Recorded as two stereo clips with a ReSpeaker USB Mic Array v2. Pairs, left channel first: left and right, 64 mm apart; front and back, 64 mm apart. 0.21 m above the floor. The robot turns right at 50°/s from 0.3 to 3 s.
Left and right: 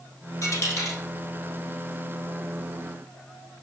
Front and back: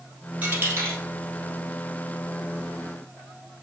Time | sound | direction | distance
0.4 | a dropped coin | 110° left | 2.5 m